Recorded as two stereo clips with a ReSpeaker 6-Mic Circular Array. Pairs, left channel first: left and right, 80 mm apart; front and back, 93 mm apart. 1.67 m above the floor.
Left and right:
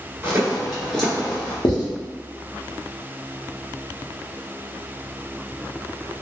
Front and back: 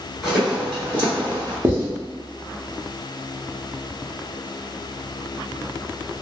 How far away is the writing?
About 0.8 m.